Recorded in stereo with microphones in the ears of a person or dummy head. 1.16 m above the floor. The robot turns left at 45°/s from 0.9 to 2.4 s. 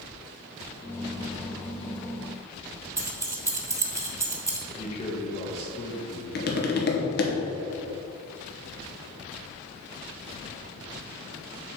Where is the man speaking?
30° left (ahead or behind), 1.6 m.